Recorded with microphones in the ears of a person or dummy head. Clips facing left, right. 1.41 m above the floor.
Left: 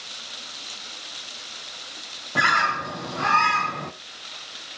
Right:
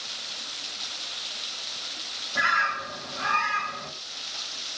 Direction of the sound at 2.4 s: 50° left (ahead or behind).